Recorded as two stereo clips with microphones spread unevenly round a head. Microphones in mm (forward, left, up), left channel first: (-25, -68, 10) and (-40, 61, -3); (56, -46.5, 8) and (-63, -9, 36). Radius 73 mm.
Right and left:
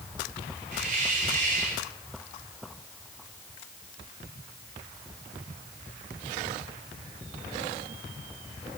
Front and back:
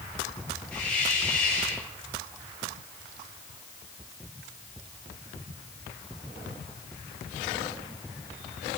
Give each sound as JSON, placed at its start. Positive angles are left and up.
{"t": 0.7, "sound": "a hiss", "azimuth_deg": 60, "distance_m": 3.5}